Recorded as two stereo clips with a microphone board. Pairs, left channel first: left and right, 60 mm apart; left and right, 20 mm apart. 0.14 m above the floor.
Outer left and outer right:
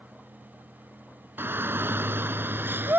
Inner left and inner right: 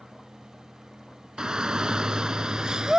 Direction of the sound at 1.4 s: 40° right (ahead or behind).